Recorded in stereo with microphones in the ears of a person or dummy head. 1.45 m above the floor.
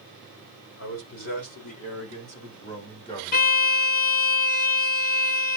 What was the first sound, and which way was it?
A man speaking, 55° left (ahead or behind).